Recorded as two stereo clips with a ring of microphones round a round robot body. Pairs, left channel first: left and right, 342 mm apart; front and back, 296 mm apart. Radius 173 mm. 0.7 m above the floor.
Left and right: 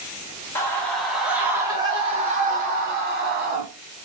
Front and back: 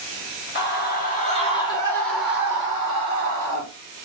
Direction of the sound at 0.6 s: 10° left.